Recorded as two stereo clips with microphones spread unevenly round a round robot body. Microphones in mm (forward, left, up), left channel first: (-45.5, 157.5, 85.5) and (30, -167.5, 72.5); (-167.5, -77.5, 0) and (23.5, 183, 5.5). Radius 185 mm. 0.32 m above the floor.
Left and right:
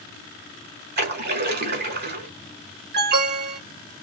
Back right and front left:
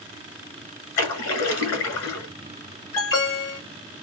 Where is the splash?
125° right, 1.3 m.